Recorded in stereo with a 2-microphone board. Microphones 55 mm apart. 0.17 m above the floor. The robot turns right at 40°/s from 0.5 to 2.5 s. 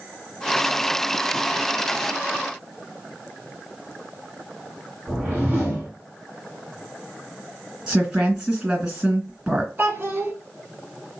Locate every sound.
5.1 s a whoosh: 25° right (ahead or behind), 1.6 m
7.9 s a woman speaking: 10° right (ahead or behind), 2.5 m
9.8 s a child speaking: 40° right (ahead or behind), 0.9 m